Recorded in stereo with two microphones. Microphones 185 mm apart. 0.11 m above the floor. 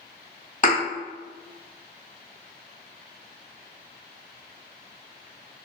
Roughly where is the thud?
Left.